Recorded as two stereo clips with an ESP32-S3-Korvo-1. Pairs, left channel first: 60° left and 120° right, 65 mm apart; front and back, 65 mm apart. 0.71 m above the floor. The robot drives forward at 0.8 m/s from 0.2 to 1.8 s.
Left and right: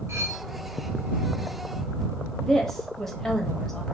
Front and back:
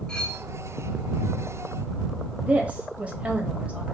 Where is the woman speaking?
140° left, 0.9 m.